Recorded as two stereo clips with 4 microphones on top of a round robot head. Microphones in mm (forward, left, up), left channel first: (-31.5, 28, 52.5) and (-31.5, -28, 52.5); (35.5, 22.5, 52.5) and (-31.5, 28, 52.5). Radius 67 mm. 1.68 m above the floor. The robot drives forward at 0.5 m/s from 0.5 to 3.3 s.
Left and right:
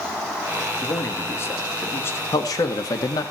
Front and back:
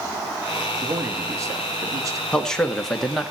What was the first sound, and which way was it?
A man speaking, 130° left.